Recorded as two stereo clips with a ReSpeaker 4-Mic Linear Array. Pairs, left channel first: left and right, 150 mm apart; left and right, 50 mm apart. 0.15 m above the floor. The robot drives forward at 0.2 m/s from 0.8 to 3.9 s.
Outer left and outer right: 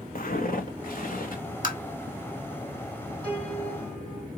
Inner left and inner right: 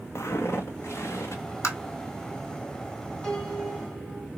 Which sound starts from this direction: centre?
A piano, at 3.2 s.